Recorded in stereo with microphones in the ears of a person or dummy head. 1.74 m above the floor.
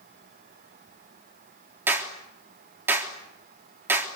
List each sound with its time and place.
1.9 s a clap: 10° right (ahead or behind), 3.5 m